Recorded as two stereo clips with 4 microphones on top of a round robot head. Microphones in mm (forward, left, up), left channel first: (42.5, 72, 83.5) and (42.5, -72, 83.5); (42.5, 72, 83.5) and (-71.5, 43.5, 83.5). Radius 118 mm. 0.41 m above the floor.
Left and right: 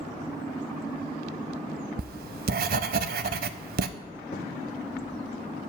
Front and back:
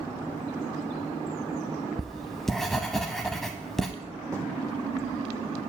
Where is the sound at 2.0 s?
75° right, 0.6 m.